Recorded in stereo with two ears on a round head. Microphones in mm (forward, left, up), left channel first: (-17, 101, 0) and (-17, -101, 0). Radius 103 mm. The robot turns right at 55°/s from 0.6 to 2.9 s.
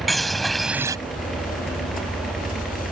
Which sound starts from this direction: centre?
A bird, at 0.1 s.